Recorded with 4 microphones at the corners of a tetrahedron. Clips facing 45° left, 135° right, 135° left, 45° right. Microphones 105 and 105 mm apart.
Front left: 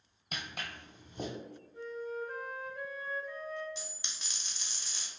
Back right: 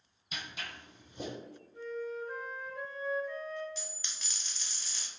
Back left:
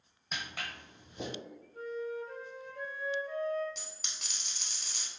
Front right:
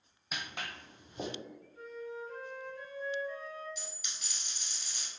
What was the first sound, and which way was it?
Footsteps, 40° left.